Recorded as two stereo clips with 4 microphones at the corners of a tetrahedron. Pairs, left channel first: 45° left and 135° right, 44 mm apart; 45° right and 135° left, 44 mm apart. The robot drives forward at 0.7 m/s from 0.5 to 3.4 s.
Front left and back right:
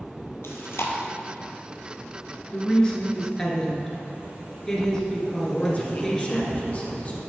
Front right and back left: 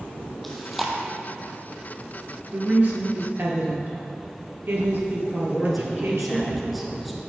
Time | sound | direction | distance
0.4 | chewing | 40° left | 1.2 m
2.5 | a woman speaking | 100° left | 1.6 m
5.5 | a man speaking | 45° left | 1.4 m